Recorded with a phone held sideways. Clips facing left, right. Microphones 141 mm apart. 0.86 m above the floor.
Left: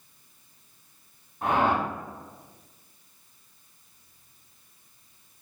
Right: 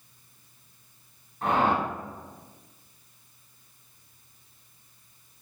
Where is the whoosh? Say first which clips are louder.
Even; 10° left (ahead or behind), 0.8 m.